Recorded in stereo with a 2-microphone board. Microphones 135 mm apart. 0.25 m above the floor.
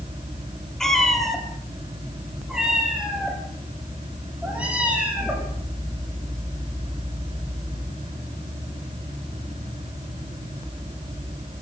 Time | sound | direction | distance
0.8 | a cat meowing | 5° left (ahead or behind) | 3.5 m